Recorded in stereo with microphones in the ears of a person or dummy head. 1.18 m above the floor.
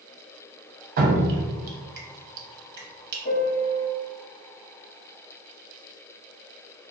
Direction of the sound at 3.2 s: 55° left (ahead or behind).